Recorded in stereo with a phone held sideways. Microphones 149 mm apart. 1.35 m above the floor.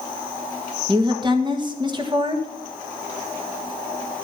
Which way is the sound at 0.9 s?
30° right (ahead or behind).